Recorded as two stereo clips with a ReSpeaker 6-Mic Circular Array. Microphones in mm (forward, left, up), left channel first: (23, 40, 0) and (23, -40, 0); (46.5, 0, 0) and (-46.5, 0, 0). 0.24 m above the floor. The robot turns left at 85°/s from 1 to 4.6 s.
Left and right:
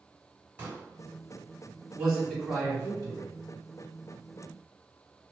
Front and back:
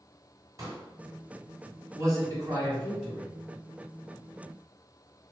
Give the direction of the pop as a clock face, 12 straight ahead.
5 o'clock.